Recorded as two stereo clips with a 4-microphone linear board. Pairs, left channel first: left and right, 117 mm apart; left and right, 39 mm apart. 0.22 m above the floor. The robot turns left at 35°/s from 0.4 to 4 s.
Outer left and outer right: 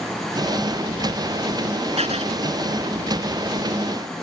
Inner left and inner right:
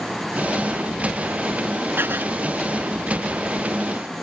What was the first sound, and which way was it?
Writing, 65° right (ahead or behind).